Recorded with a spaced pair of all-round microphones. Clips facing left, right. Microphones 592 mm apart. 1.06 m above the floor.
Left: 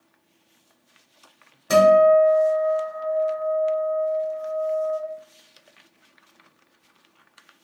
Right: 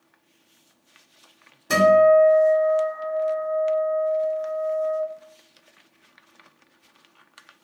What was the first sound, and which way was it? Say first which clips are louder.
A guitar: left 1 dB; 10° left (ahead or behind).